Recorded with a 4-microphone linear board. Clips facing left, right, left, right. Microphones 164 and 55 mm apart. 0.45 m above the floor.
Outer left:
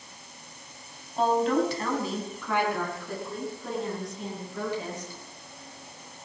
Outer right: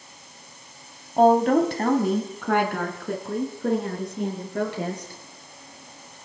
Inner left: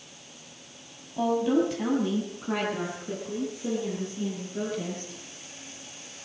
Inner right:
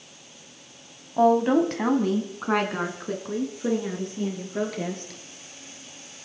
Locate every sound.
1.2 s a woman speaking: 45° right (ahead or behind), 2 m; by 5.2 s 60° right (ahead or behind), 7 m